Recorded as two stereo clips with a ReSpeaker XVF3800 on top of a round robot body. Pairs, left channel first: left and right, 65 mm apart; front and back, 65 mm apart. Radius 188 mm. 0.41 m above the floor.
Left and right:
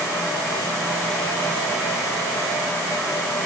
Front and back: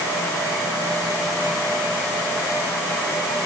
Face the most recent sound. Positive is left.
No sound to turn to.